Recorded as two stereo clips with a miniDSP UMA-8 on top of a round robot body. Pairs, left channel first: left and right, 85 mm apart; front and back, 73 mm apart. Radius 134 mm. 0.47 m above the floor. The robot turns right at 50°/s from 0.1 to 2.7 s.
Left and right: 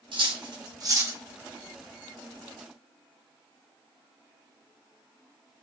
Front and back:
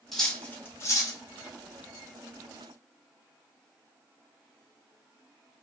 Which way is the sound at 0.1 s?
85° right.